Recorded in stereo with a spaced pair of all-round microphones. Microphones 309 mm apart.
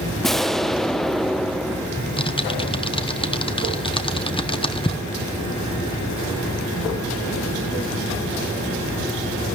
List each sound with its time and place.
0.2 s an explosion: centre (ahead or behind), 0.5 m
2.0 s typing on a keyboard: 15° left (ahead or behind), 0.9 m